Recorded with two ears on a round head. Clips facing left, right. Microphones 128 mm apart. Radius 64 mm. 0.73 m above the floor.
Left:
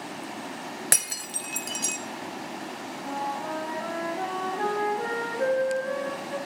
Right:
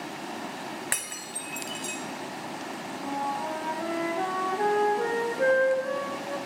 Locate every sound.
0.9 s breaking glass: 45° left (ahead or behind), 0.7 m
3.0 s a flute: 25° right (ahead or behind), 1.8 m